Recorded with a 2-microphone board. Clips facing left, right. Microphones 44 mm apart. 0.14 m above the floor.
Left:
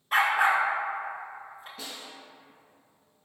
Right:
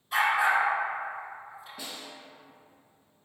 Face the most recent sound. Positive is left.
turn(degrees=-10)  # may be behind; listen again after turning